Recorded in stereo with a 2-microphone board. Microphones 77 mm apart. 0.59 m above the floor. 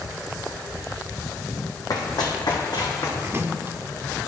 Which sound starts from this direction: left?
Running footsteps, at 1.9 s.